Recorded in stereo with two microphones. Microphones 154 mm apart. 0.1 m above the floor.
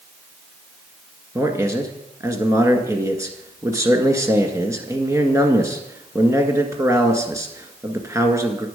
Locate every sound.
1.4 s a man speaking: 20° right (ahead or behind), 1.5 m